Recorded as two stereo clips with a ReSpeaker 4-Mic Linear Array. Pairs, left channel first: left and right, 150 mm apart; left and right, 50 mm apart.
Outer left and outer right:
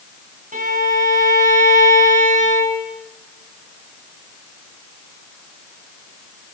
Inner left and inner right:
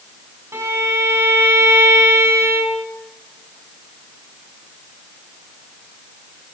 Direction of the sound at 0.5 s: 65° right (ahead or behind).